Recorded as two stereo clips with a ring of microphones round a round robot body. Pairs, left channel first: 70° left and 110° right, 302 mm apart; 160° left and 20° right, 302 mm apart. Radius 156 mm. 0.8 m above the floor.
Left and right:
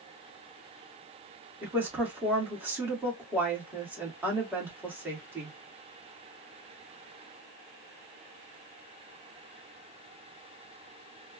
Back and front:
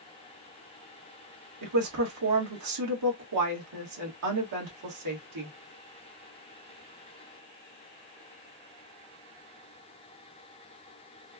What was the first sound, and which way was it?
A woman speaking, 30° right.